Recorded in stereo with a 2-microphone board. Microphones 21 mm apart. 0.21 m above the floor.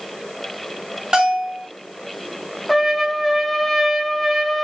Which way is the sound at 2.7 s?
Centre (ahead or behind).